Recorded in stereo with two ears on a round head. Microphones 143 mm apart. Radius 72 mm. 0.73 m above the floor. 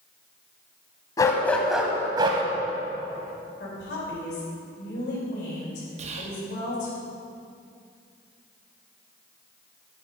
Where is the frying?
No frying in this recording.